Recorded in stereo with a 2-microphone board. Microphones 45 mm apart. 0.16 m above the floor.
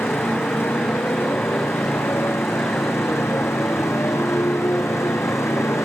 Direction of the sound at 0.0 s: 60° left (ahead or behind).